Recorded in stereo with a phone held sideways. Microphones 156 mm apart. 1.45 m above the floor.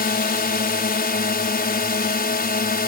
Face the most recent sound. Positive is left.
turn(degrees=80)